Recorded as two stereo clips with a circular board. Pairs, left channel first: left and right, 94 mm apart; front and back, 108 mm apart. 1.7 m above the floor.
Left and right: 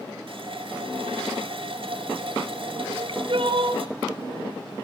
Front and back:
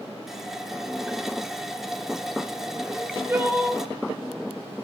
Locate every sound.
0.3 s a running tap: 95° right, 3 m
2.9 s crying: 110° right, 4 m